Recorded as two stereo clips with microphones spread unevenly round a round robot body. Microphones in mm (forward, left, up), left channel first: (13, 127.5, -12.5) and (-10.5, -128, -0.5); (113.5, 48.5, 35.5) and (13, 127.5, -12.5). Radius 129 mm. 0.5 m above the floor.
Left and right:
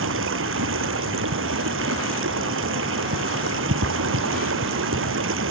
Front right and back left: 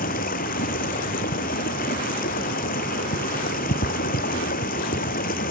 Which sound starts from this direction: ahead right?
Running water, at 0.0 s.